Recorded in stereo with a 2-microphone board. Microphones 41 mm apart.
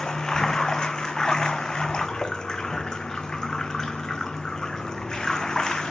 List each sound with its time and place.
0.0 s running water: 20° left (ahead or behind), 0.9 m